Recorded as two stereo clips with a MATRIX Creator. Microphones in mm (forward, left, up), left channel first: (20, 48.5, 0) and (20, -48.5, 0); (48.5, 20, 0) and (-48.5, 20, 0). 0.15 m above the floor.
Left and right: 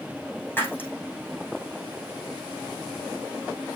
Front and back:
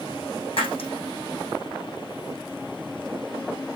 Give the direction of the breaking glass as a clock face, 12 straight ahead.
11 o'clock.